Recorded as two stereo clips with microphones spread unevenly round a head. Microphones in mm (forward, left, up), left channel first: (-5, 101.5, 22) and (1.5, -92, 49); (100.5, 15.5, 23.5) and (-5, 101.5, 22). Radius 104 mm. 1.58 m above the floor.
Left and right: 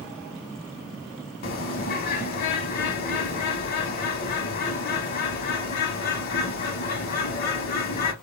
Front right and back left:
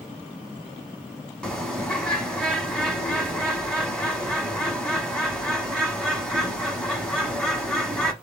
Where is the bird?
45° left, 0.7 m.